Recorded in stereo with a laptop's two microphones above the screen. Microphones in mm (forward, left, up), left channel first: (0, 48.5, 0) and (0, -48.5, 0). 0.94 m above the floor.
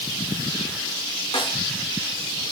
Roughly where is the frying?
No frying in this recording.